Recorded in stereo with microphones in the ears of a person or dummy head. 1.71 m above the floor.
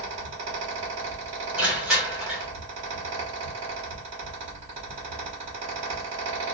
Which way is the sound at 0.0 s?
30° right (ahead or behind).